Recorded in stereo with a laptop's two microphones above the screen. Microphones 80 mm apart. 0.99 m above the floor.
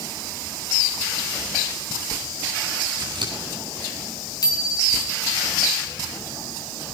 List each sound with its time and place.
3.0 s scissors: 75° right (ahead or behind), 8 m
4.4 s a bicycle bell: 55° left (ahead or behind), 7 m